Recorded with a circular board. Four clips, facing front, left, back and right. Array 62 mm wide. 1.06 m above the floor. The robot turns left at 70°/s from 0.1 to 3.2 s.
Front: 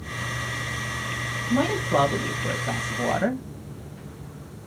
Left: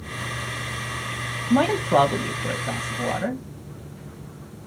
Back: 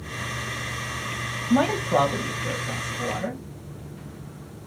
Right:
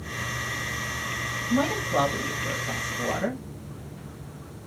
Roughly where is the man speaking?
Behind left.